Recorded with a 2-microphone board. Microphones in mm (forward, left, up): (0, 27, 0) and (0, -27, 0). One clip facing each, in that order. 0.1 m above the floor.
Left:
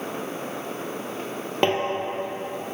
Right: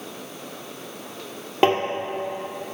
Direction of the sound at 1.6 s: 10° right (ahead or behind).